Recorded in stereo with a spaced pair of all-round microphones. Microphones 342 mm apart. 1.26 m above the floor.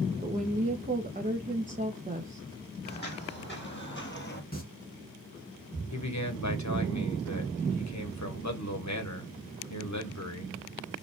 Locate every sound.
0.2 s a woman speaking: 25° right (ahead or behind), 0.7 m
2.9 s footsteps: 30° left (ahead or behind), 3 m
4.5 s singing: 30° left (ahead or behind), 2.5 m
5.9 s a man speaking: 55° left (ahead or behind), 1.2 m